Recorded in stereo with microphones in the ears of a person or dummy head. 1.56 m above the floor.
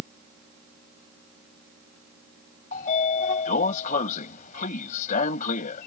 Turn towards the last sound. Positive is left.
turn(degrees=45)  # may be behind; listen again after turning